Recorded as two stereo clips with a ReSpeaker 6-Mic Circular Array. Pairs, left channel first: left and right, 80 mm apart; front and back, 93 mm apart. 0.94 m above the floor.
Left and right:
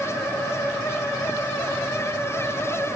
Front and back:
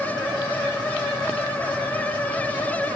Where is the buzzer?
I don't hear a buzzer.